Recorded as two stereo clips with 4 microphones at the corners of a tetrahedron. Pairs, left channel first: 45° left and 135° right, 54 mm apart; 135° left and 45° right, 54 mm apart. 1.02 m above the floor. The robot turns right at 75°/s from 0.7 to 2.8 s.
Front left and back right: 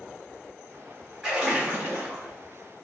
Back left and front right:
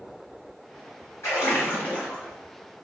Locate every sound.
1.2 s a splash: 140° left, 1.4 m; by 2.4 s 135° right, 1.4 m